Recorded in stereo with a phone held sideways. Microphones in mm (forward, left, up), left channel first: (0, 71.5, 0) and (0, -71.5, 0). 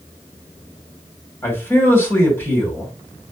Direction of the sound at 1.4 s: 15° left (ahead or behind).